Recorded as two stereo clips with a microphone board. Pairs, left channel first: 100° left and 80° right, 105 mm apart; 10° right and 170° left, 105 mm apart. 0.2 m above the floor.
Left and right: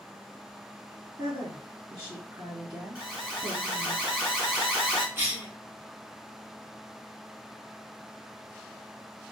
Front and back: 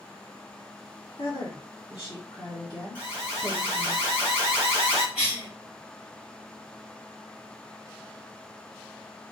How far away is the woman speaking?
About 1.5 m.